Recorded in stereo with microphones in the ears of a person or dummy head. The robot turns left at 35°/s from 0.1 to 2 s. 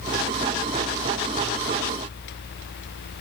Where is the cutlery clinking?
I don't hear cutlery clinking.